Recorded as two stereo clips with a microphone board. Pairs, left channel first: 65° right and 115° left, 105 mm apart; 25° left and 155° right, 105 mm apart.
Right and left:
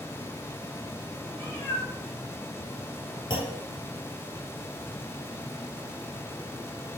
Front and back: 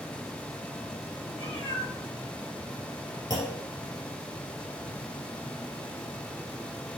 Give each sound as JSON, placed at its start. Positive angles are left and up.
{"t": 1.3, "sound": "a cat meowing", "azimuth_deg": 5, "distance_m": 3.0}
{"t": 3.3, "sound": "a clunk", "azimuth_deg": -30, "distance_m": 1.9}